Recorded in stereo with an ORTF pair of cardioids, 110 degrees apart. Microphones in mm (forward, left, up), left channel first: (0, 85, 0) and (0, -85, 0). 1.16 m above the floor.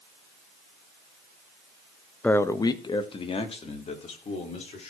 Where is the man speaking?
5° left, 0.7 m; by 4.9 s 40° left, 3.5 m.